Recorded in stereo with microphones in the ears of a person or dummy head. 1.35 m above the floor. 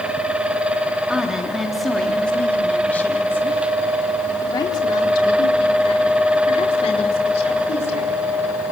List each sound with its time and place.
1.1 s a woman speaking: 10° right (ahead or behind), 3.5 m; by 8.2 s 35° left (ahead or behind), 5.5 m